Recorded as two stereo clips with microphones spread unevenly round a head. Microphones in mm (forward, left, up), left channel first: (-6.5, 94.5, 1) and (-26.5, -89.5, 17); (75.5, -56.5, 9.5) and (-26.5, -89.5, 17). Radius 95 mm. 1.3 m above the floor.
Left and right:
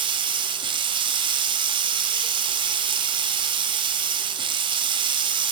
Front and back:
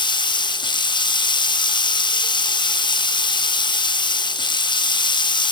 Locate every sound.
0.0 s running water: 30° right, 0.7 m